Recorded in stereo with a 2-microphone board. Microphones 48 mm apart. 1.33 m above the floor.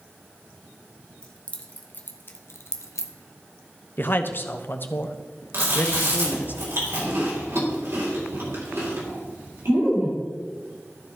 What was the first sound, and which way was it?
Keys jangling, 20° left (ahead or behind).